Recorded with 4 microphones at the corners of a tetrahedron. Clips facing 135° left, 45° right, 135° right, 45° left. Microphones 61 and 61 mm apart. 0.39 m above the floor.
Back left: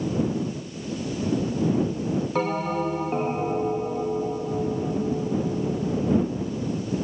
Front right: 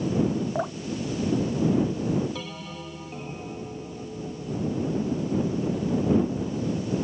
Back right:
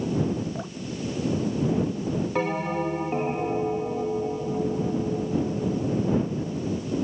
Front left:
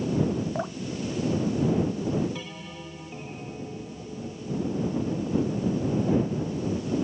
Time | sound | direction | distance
0.6 | dripping | 20° right | ?
2.4 | a bell | straight behind | ?